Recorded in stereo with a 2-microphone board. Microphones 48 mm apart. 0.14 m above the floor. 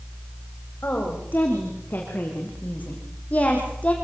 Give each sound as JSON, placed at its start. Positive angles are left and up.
{"t": 0.8, "sound": "a woman speaking", "side_deg": 45, "distance_m": 8.5}